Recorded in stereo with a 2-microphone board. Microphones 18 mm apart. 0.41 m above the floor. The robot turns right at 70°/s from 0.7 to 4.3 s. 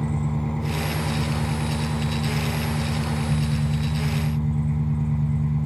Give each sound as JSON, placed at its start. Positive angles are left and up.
{"t": 0.0, "sound": "an engine running", "azimuth_deg": 120, "distance_m": 4.5}